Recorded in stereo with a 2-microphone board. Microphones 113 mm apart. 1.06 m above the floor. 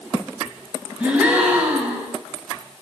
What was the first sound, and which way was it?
A gasp, 15° right (ahead or behind).